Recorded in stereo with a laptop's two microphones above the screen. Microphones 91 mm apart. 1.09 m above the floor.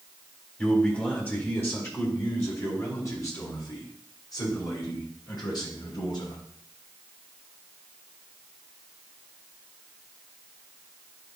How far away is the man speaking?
About 3.5 m.